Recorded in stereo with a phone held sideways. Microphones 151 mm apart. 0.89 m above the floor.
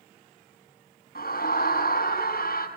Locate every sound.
1.1 s a scream: 85° left, 7.5 m